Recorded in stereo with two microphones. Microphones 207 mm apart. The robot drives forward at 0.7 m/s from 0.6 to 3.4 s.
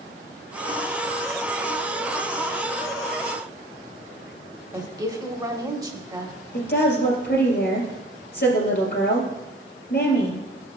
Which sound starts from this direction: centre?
A woman speaking, at 4.7 s.